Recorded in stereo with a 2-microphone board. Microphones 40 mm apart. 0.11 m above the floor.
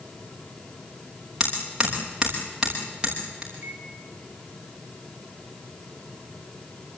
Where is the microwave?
55° right (ahead or behind), 9.5 m.